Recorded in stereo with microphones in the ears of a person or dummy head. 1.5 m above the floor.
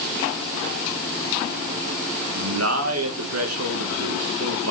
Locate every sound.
2.3 s a man speaking: 85° right, 2 m